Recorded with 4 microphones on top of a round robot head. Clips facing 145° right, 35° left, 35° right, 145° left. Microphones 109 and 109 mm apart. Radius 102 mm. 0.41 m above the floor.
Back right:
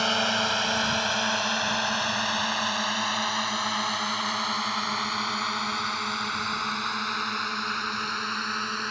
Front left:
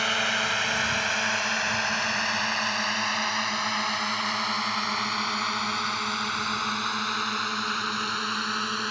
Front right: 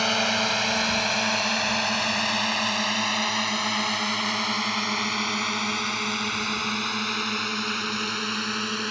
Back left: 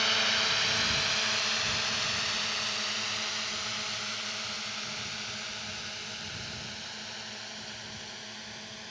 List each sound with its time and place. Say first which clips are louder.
0.0 s a drone: back right 2 dB, front right 8 dB; 80° right; by 8.9 s 45° right